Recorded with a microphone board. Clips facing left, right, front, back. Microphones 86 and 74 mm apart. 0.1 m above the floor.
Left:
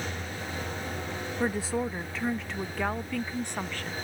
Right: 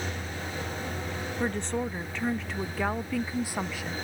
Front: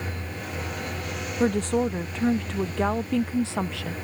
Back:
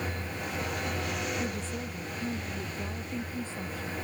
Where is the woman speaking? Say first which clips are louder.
Left 1 dB, front 12 dB; 10° left; by 3.9 s 10° right.